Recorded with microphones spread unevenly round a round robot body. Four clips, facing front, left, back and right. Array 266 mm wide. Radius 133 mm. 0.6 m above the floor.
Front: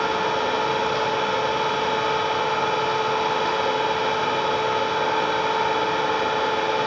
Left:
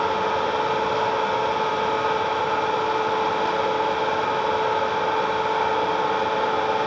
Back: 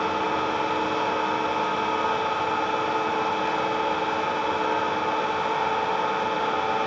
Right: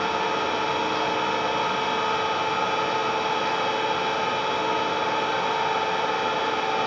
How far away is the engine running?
About 1.6 m.